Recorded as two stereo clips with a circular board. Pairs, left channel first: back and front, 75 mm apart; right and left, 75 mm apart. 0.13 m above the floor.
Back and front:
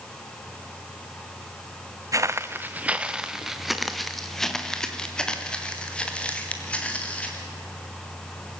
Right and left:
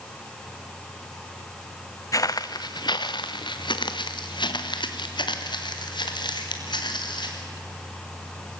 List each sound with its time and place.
2.1 s footsteps: 45° right, 0.8 m; by 7.4 s 105° right, 4 m